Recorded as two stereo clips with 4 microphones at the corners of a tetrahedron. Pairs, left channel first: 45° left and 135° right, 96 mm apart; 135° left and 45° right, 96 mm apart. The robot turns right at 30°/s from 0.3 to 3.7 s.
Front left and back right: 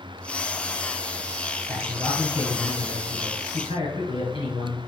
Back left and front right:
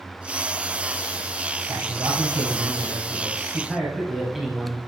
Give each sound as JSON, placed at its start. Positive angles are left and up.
{"t": 1.7, "sound": "a man speaking", "azimuth_deg": -20, "distance_m": 2.5}